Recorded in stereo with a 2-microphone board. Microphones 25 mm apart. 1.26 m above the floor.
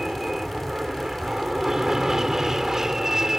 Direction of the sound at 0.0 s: 15° right (ahead or behind).